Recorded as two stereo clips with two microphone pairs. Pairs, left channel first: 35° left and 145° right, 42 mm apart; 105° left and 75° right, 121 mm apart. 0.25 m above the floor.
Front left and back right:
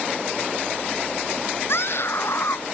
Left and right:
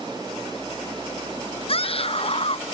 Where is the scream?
65° left.